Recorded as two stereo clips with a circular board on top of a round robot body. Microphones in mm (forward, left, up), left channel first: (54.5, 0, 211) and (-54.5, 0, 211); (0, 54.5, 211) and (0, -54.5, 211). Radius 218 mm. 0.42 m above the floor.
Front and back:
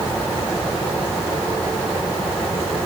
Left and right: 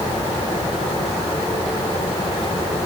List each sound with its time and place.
Only background noise.